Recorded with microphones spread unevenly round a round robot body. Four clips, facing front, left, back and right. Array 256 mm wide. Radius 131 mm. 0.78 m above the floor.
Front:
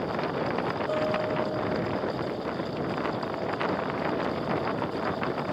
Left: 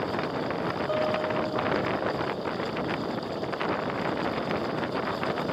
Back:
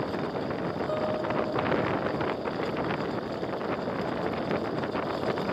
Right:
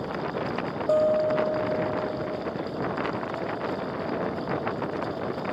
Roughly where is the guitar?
Behind right.